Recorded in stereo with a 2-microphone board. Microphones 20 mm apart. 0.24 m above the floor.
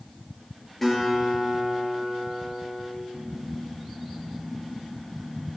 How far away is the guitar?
About 4.5 m.